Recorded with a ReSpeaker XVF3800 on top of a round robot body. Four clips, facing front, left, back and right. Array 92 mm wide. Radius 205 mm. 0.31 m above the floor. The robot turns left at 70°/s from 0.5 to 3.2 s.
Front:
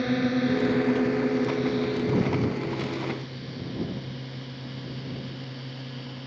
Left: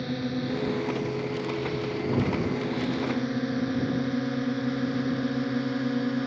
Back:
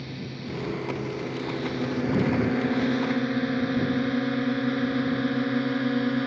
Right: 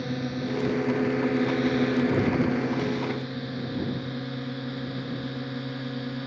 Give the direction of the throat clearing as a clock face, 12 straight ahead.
No throat clearing in this recording.